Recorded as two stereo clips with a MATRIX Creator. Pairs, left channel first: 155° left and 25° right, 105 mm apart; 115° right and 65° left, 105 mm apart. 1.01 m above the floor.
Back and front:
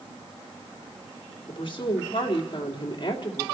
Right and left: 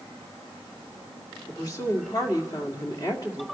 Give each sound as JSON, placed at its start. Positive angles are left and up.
{"t": 1.5, "sound": "a woman speaking", "azimuth_deg": -165, "distance_m": 2.0}